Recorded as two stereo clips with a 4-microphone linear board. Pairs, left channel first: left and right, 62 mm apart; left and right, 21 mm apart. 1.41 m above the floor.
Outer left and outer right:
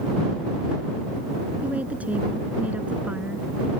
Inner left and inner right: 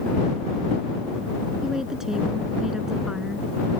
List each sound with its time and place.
1.6 s a woman speaking: 25° right (ahead or behind)